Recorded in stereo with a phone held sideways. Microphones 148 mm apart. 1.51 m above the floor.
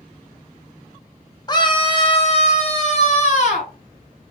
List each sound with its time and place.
1.5 s a scream: 30° left (ahead or behind), 0.8 m; by 3.7 s 50° left (ahead or behind), 1.9 m